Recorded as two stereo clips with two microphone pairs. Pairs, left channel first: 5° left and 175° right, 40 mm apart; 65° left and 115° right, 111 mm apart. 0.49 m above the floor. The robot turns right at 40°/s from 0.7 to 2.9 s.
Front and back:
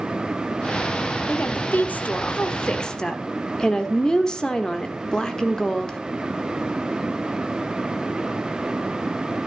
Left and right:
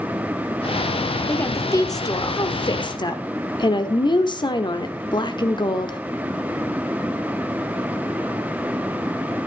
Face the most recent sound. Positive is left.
turn(degrees=65)